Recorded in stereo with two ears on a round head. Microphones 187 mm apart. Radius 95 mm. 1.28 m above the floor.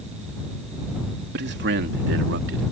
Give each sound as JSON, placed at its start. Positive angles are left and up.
{"t": 1.3, "sound": "a man speaking", "side_deg": -55}